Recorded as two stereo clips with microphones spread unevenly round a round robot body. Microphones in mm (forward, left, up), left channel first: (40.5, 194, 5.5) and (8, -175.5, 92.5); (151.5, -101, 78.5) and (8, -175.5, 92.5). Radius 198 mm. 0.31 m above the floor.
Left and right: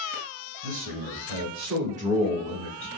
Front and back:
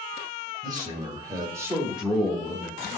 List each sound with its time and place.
0.6 s a man speaking: 85° right, 2 m; by 2.9 s 90° left, 1.5 m